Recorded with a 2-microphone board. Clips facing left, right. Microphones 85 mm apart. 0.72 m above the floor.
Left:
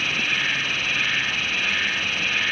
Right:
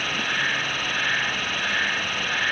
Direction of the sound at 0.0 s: 40° right (ahead or behind).